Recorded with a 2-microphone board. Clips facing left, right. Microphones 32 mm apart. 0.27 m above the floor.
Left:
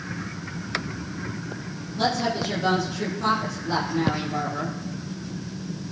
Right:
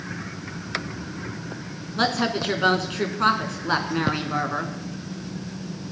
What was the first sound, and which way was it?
A woman speaking, 65° right (ahead or behind).